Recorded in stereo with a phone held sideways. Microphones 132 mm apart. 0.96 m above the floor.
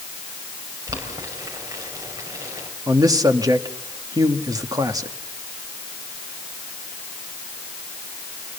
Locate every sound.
0.9 s boiling: 25° right (ahead or behind), 5.5 m
2.9 s a man speaking: 25° right (ahead or behind), 1.7 m